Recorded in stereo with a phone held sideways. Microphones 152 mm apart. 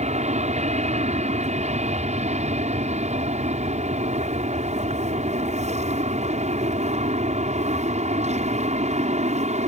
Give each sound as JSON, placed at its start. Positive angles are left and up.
{"t": 0.0, "sound": "an aircraft", "side_deg": -50}